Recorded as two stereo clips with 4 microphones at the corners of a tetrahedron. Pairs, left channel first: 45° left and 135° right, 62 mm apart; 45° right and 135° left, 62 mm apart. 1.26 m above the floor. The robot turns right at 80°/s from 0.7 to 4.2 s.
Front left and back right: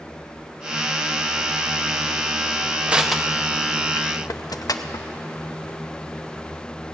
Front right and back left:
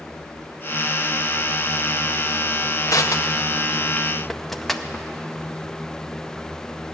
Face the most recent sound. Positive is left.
turn(degrees=40)